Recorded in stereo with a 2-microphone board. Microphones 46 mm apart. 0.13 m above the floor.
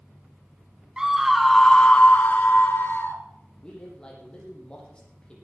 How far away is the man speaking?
About 5.5 m.